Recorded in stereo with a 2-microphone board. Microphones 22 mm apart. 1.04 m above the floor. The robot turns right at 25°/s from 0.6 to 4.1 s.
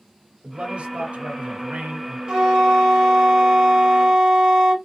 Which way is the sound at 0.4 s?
115° right.